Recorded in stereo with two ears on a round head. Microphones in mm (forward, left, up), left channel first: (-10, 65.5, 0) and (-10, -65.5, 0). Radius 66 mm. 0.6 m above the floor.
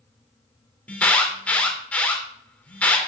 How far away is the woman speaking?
I don't hear a woman speaking.